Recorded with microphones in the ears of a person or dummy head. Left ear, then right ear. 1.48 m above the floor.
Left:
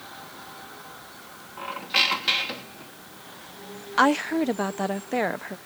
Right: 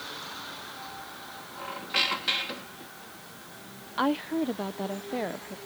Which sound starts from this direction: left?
A woman speaking, at 4.0 s.